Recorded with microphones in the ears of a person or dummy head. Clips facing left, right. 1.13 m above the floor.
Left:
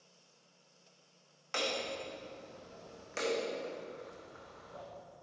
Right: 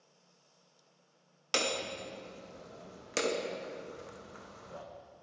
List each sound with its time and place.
1.5 s hammering: 55° right (ahead or behind), 0.6 m